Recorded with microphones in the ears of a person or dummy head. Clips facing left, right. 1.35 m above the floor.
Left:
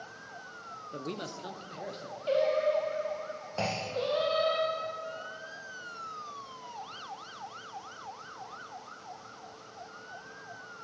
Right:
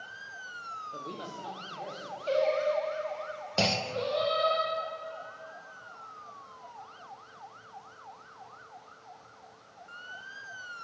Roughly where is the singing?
Centre.